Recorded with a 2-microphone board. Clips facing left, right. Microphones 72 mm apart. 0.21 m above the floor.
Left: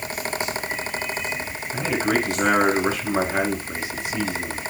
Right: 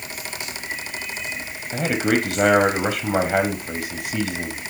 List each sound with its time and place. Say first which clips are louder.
1.7 s a man speaking: right 2 dB; 65° right (ahead or behind), 5 m